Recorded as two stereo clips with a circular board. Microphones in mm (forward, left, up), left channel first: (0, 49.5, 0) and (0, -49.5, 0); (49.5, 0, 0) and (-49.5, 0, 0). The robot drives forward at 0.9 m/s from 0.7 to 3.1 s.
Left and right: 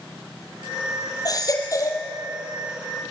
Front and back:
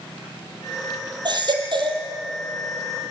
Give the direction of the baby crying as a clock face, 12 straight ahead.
7 o'clock.